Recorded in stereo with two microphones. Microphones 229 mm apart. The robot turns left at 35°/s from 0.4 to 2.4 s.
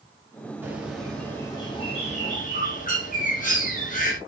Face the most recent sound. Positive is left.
turn(degrees=130)